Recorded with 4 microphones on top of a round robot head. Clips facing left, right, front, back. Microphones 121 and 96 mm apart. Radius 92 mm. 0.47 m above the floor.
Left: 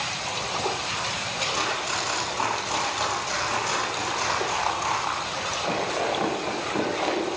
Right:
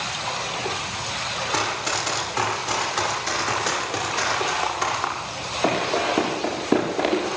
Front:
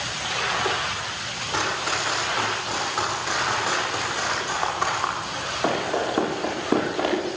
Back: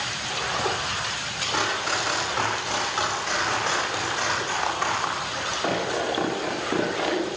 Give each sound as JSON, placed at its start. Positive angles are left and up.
{"t": 1.5, "sound": "running footsteps", "azimuth_deg": -90, "distance_m": 9.5}